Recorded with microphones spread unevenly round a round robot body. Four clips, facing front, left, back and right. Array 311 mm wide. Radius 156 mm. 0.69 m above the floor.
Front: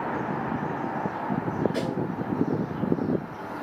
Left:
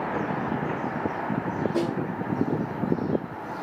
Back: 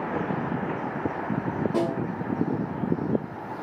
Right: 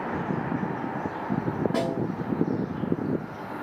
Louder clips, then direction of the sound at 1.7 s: Left 2 dB, back 3 dB; 115° right.